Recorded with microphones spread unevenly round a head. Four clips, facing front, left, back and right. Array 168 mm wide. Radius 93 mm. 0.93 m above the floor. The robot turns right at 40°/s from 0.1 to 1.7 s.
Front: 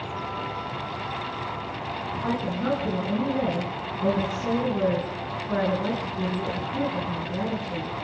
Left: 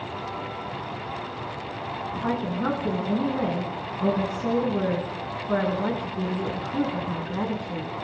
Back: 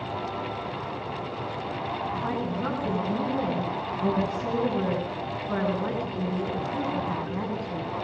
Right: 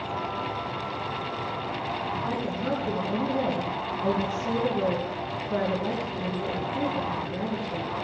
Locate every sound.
2.1 s a woman speaking: 90° left, 9 m